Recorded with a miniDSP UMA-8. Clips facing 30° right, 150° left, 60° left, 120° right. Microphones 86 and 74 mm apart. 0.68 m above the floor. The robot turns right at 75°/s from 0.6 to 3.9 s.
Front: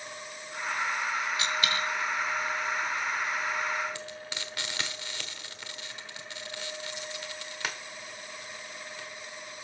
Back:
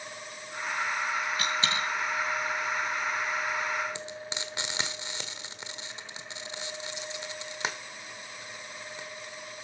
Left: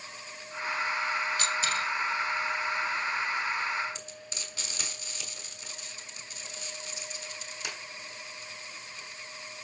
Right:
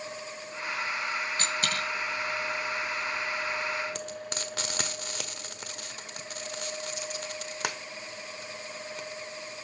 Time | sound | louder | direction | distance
1.4 | a dropped coin | even, left 1 dB | 165° right | 2.5 m
4.0 | frying | back 2 dB, right 8 dB | 145° right | 1.3 m